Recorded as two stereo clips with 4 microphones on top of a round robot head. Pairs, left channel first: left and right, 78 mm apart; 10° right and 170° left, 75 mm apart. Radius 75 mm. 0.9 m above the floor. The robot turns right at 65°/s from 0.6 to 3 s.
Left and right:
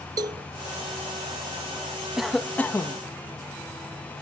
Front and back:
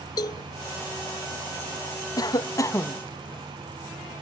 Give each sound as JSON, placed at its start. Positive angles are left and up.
{"t": 0.2, "sound": "a cowbell", "azimuth_deg": -50}
{"t": 2.2, "sound": "a cough", "azimuth_deg": -10}